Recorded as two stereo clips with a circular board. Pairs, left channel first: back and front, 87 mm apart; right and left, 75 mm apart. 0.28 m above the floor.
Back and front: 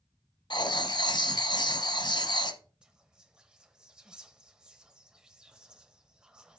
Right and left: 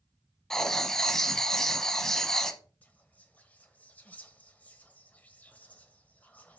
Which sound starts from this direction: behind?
Writing, at 0.5 s.